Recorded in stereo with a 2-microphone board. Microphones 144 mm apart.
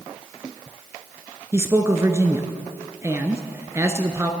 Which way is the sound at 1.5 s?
20° right (ahead or behind).